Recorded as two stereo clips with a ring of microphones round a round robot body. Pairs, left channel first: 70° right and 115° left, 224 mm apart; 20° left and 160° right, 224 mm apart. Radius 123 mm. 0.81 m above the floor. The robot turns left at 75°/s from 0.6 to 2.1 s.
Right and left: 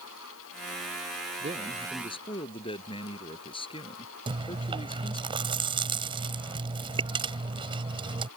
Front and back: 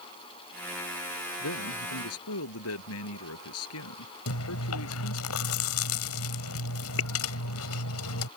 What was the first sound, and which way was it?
A man speaking, 55° left.